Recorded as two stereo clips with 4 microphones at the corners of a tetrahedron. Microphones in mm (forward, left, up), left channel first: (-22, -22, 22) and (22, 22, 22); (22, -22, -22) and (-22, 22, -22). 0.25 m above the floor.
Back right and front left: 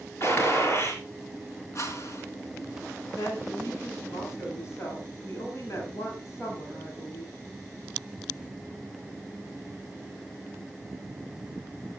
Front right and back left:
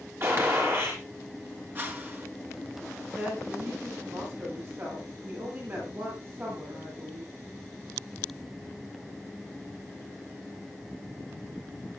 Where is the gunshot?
Straight behind, 5 m.